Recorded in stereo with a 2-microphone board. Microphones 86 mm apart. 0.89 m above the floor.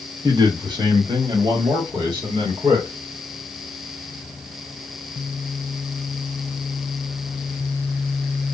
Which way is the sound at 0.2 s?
45° right (ahead or behind).